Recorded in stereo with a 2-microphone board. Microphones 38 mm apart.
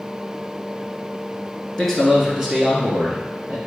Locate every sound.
1.8 s a man speaking: 10° left (ahead or behind), 1.3 m; by 3.6 s 30° right (ahead or behind), 2 m